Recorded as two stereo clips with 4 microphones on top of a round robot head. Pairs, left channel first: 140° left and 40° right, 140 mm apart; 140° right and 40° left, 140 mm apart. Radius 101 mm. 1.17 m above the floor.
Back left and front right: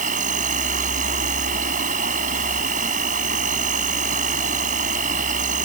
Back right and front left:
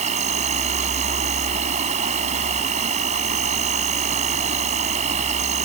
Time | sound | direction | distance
0.0 | an insect | 5° right | ?